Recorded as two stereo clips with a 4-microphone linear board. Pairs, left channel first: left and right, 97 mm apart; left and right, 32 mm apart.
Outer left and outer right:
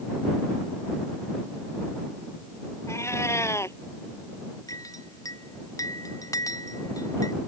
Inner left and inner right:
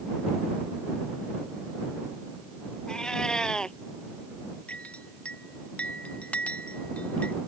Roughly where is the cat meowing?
Left.